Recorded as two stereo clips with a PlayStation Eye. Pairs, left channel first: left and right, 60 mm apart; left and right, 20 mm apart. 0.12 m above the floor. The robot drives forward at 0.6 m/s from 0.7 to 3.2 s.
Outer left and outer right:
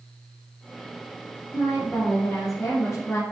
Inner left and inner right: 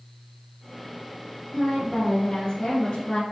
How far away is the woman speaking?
About 3.5 m.